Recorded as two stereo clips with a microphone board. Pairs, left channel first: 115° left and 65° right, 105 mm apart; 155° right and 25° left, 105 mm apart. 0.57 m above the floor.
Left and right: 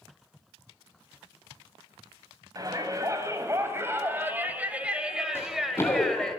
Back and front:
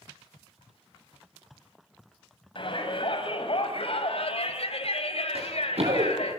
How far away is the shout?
About 4.5 m.